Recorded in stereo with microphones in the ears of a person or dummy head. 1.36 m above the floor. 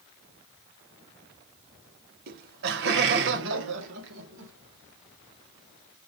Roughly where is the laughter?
Right.